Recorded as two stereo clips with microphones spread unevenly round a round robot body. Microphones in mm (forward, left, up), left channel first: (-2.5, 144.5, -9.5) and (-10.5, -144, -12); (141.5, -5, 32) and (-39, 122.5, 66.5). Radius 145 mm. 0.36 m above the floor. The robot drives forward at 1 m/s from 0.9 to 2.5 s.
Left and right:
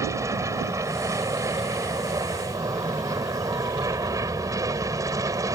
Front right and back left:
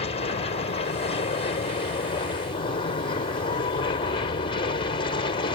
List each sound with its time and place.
0.0 s an aircraft: 20° right; by 5.6 s 25° right